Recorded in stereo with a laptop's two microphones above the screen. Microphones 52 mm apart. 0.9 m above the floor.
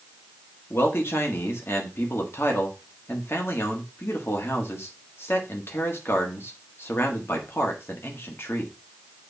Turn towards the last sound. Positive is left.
turn(degrees=50)  # may be behind; listen again after turning